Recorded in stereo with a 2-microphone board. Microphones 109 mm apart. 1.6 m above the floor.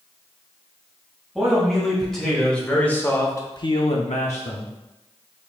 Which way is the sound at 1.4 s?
Centre (ahead or behind).